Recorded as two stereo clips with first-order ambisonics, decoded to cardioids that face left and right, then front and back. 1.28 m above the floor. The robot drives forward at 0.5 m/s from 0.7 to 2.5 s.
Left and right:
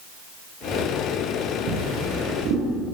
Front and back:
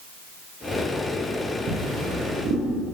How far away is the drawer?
About 10 m.